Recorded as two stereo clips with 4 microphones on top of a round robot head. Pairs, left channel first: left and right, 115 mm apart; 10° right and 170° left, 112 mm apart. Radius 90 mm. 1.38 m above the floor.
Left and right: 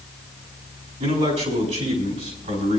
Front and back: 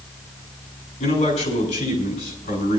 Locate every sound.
1.0 s a man speaking: 50° right, 3.5 m